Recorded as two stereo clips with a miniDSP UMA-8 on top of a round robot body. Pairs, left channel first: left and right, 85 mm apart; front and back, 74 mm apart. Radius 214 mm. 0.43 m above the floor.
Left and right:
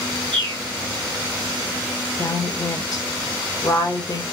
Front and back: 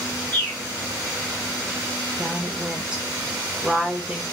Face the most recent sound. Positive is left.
turn(degrees=105)